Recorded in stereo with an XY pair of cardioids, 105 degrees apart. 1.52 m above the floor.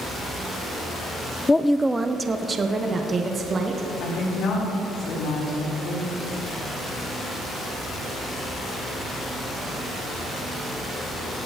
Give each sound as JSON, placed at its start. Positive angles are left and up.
{"t": 1.5, "sound": "a woman speaking", "azimuth_deg": 20, "distance_m": 0.5}
{"t": 4.0, "sound": "a woman speaking", "azimuth_deg": 70, "distance_m": 5.0}